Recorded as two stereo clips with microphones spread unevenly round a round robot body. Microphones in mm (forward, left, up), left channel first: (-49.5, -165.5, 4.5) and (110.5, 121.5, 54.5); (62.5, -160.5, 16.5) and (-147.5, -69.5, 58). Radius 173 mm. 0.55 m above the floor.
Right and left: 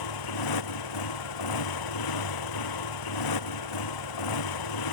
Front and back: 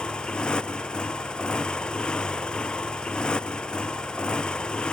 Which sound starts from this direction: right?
A motorcycle, at 0.0 s.